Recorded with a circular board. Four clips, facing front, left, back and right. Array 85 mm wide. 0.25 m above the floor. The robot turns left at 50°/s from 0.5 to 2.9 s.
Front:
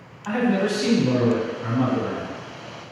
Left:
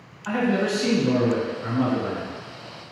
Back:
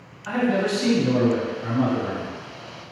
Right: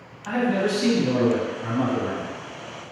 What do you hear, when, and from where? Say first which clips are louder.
0.2 s a man speaking: even, front 1 dB; 10° left, 1.8 m; by 2.4 s 80° right, 1.8 m